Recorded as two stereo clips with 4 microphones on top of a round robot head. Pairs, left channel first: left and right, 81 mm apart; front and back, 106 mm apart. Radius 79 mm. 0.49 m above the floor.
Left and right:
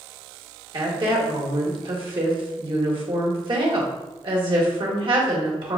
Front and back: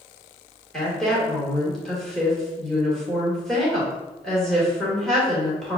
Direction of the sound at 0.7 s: 90° right.